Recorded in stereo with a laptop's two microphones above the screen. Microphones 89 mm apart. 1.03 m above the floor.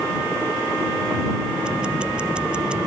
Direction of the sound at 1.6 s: 10° right (ahead or behind).